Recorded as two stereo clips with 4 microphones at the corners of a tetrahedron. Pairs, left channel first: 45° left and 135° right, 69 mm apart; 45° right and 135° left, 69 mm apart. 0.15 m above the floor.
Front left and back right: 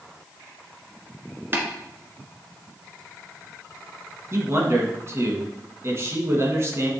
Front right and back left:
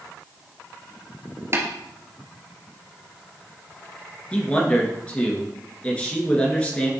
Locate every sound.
1.5 s tapping: 170° left, 1.5 m
4.3 s a man speaking: 110° right, 1.8 m